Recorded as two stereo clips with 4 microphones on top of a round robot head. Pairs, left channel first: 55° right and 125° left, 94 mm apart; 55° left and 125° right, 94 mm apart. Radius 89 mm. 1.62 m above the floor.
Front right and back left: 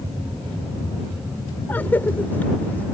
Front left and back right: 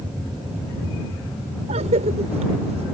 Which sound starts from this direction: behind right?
A cough, at 1.7 s.